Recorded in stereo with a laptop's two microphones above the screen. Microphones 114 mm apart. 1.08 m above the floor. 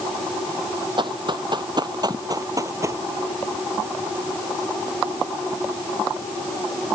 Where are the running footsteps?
45° right (ahead or behind); by 3.0 s 25° right (ahead or behind).